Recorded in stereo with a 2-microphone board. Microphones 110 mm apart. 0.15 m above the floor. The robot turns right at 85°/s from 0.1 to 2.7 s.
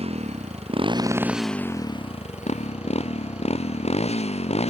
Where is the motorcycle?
115° right; by 4.7 s 110° left.